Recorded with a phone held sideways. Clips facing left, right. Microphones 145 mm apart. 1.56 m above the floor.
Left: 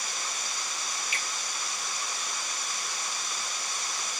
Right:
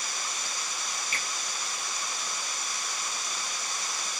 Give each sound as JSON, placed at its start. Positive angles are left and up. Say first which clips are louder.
{"t": 1.1, "sound": "a finger snap", "louder": "even", "side_deg": -45, "distance_m": 1.8}